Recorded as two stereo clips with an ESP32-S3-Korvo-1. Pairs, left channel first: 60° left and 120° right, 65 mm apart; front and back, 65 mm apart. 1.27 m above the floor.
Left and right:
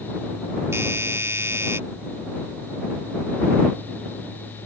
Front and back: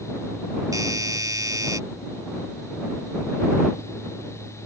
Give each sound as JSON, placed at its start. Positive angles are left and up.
{"t": 0.7, "sound": "a doorbell", "azimuth_deg": -165}